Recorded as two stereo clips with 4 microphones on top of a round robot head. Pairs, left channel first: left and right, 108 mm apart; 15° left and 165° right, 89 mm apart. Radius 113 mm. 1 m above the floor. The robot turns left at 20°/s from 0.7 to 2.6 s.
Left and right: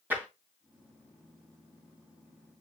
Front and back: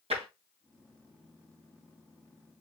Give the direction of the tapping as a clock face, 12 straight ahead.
6 o'clock.